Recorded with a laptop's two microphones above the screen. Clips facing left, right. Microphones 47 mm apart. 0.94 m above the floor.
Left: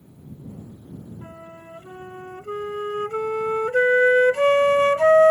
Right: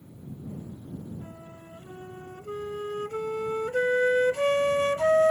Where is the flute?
40° left (ahead or behind).